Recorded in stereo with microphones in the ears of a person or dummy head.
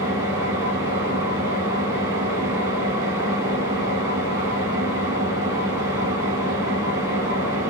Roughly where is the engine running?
Centre.